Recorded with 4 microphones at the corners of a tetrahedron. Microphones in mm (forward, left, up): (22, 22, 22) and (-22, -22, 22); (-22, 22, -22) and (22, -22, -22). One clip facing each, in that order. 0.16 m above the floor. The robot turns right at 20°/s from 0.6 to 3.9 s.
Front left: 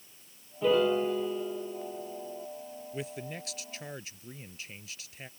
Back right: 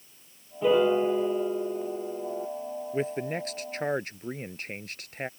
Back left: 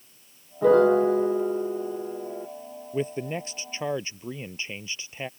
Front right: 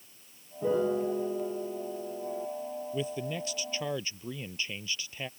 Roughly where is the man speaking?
Behind.